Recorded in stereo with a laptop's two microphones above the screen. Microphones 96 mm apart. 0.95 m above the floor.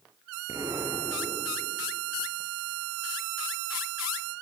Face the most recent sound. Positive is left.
turn(degrees=-40)  # may be behind; listen again after turning